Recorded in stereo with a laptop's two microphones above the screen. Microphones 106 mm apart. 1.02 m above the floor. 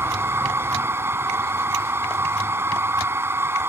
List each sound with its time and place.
0.0 s a machine running: 20° right (ahead or behind)